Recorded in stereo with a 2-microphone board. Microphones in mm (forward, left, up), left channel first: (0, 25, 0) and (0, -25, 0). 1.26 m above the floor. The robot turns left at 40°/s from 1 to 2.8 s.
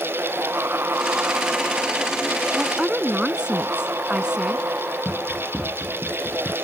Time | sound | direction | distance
2.5 | a woman speaking | 5° right (ahead or behind) | ?
5.0 | running footsteps | 5° right (ahead or behind) | ?